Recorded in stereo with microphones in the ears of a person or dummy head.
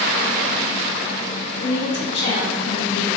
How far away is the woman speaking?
About 0.5 m.